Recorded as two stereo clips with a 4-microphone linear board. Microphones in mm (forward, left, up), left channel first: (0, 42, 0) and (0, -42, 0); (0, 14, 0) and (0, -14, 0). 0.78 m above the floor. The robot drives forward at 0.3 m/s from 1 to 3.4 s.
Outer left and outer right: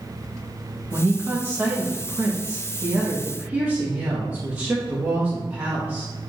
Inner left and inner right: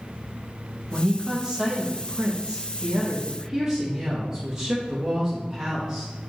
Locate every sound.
0.9 s a woman speaking: 20° right (ahead or behind), 1.0 m